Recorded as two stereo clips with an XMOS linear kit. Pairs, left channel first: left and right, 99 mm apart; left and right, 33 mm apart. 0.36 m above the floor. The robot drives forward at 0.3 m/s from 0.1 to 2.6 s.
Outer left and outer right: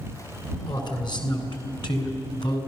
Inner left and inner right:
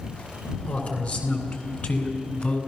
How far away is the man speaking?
About 3.5 m.